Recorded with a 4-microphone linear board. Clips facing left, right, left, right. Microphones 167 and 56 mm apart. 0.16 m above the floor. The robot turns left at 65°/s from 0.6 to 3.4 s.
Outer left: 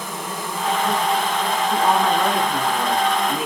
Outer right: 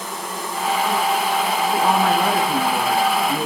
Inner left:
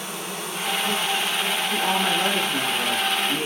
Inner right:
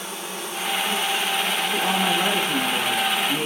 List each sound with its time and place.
0.0 s an insect: 70° left, 2.5 m; by 3.5 s 110° right, 2.5 m
1.7 s a woman speaking: 5° right, 1.8 m; by 3.5 s 115° right, 1.8 m